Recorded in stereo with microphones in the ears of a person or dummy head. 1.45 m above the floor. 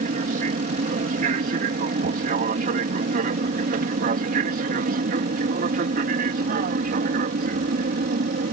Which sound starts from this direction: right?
An aircraft, at 0.0 s.